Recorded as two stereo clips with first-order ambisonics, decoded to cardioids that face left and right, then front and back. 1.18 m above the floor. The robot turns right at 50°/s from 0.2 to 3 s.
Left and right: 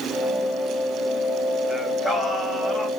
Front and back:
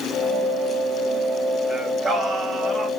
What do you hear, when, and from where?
1.7 s singing: 110° left, 1.0 m; by 2.9 s 170° left, 1.0 m